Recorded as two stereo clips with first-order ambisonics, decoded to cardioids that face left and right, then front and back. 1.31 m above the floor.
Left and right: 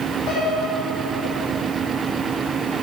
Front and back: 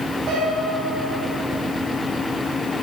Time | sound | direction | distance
0.3 | a piano | 125° left | 6 m